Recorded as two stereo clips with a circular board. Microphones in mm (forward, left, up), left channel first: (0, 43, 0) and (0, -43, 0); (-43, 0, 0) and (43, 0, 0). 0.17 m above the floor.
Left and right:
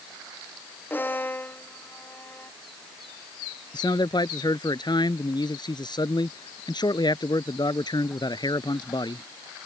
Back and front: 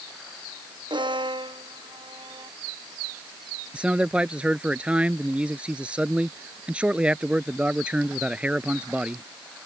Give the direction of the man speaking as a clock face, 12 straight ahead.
9 o'clock.